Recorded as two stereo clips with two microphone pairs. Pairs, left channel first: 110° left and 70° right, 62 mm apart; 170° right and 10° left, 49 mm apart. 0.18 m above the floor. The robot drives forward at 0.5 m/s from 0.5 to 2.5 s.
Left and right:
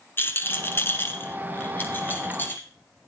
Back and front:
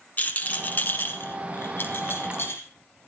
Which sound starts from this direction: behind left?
A rattle, at 0.2 s.